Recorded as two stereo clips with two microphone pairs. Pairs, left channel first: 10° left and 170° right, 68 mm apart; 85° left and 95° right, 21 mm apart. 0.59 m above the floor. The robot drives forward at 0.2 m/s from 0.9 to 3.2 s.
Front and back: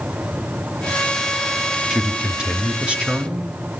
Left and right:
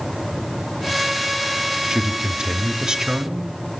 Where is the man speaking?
90° right, 1.4 m; by 3.5 s 110° right, 1.4 m.